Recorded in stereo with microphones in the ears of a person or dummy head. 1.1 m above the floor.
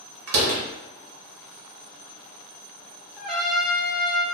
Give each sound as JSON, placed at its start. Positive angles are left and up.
{"t": 0.3, "sound": "a door slam", "side_deg": -85, "distance_m": 0.7}
{"t": 3.2, "sound": "a trumpet", "side_deg": 0, "distance_m": 0.5}